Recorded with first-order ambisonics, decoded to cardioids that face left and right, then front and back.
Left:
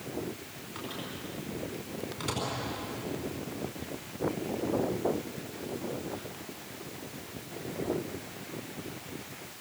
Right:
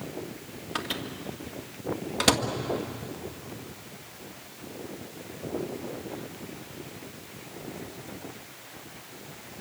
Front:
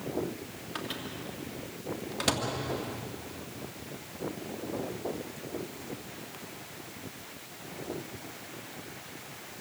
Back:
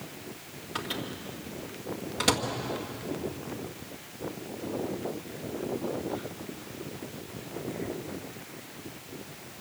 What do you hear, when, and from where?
0.8 s a microwave: 90° right, 1.9 m